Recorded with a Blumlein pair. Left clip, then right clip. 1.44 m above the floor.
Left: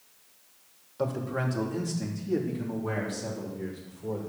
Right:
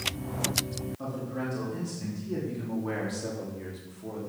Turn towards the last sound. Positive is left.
turn(degrees=-15)